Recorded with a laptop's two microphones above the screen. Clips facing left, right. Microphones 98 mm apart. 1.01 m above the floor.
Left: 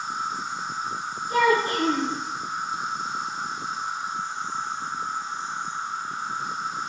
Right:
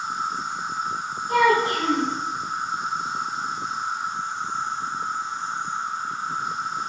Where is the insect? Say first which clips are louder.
Right 2 dB; 60° right (ahead or behind), 4 m.